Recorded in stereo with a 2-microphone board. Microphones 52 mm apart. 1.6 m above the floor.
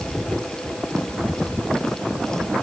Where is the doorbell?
I don't hear a doorbell.